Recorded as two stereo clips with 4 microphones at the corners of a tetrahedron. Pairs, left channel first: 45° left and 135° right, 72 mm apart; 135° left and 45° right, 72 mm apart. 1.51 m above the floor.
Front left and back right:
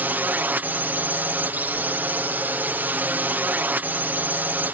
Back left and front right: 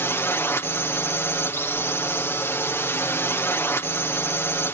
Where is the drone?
170° left.